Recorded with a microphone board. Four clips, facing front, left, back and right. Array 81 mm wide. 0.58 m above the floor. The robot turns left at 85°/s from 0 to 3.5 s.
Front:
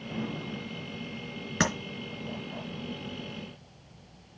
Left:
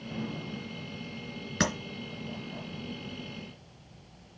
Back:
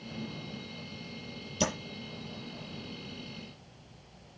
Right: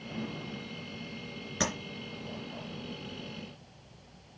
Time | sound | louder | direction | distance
1.6 | tapping | left 3 dB, front 3 dB | 15° left | 3.5 m